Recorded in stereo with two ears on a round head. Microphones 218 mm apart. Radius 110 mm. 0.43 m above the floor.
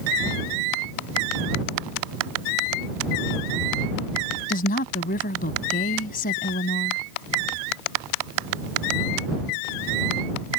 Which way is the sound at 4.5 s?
35° left (ahead or behind).